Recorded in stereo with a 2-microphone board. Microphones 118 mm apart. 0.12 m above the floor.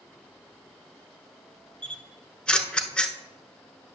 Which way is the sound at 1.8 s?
10° left (ahead or behind).